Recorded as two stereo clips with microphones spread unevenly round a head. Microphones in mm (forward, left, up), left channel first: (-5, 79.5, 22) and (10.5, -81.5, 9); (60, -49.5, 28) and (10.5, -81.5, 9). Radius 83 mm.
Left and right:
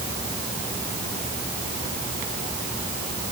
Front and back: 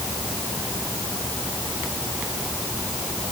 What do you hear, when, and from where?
Only background noise.